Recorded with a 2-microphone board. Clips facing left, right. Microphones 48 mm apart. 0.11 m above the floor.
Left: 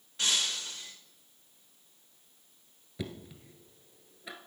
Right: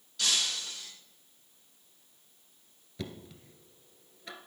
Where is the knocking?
10° left (ahead or behind), 1.4 m.